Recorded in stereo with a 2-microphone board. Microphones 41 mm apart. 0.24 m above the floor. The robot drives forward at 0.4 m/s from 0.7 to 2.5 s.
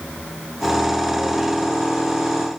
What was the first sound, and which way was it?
Only background noise.